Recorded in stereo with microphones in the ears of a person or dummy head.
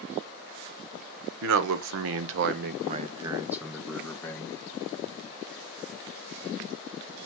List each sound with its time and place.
1.4 s a man speaking: 70° right (ahead or behind), 0.9 m; by 4.6 s 15° left (ahead or behind), 1.1 m